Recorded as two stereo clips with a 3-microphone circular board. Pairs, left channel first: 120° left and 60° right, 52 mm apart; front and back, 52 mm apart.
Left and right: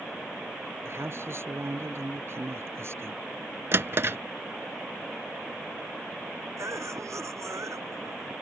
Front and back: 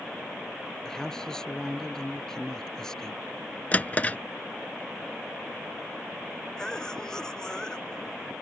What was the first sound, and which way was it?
A man speaking, 75° right.